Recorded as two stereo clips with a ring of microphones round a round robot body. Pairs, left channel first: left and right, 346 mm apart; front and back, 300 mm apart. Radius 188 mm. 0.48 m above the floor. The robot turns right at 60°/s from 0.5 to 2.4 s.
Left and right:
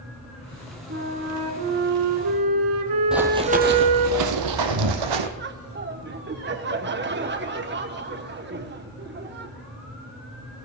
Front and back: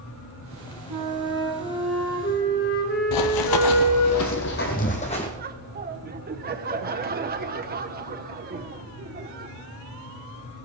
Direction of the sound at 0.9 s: 150° right.